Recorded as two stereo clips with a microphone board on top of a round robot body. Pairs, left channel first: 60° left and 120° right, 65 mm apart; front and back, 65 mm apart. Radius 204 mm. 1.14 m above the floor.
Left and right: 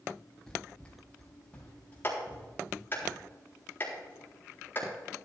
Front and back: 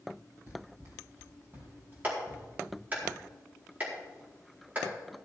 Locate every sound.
0.5 s running footsteps: 135° left, 2.5 m; by 3.0 s 120° left, 6 m
2.0 s a clap: 115° left, 4 m